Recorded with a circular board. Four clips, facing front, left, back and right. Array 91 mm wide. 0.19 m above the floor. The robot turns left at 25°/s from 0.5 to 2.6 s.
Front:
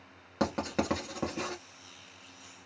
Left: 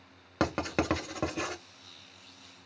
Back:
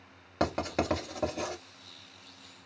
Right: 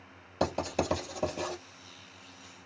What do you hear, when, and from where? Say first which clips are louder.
0.4 s writing: even, back 1 dB; 100° left, 1.5 m; by 1.6 s 75° left, 1.5 m